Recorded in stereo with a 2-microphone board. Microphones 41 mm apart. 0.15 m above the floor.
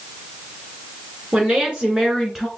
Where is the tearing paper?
No tearing paper in this recording.